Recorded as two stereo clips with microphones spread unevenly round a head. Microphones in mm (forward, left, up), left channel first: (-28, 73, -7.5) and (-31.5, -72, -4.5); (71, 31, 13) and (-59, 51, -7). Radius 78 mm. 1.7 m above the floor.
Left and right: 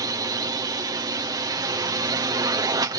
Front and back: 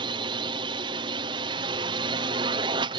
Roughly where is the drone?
Behind right.